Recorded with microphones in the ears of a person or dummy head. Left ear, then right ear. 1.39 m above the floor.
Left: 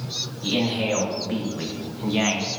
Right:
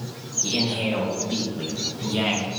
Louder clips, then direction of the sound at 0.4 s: Even; 30° left (ahead or behind).